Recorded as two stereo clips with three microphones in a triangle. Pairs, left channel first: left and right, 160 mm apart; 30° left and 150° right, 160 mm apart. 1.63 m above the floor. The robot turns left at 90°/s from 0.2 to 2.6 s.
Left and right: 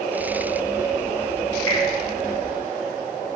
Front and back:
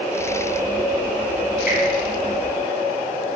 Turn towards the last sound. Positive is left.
turn(degrees=-50)